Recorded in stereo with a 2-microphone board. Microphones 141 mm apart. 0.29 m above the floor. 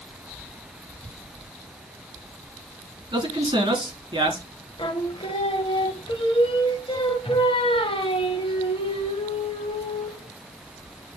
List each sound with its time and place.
3.1 s a man speaking: 40° right (ahead or behind), 2.5 m
4.8 s singing: 40° left (ahead or behind), 1.2 m